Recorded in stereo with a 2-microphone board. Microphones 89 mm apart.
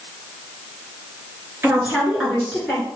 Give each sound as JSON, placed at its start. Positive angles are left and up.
{"t": 1.6, "sound": "a woman speaking", "side_deg": -25, "distance_m": 1.7}